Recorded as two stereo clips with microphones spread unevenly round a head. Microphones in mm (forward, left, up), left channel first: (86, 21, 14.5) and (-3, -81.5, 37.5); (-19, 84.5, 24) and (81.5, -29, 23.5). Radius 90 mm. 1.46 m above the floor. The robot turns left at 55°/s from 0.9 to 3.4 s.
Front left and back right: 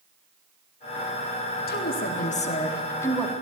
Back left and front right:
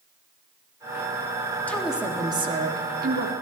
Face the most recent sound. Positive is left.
turn(degrees=-45)